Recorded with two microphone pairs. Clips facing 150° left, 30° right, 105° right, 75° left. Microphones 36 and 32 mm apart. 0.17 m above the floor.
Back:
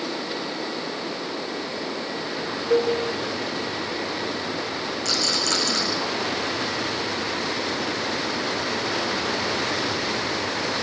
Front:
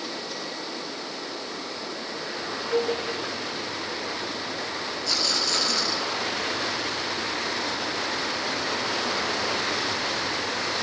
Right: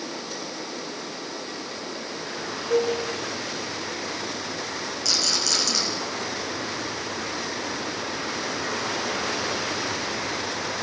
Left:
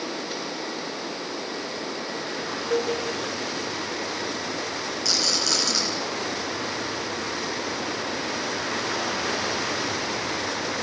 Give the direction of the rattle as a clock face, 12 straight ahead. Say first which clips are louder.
Back 2 dB, even; 7 o'clock.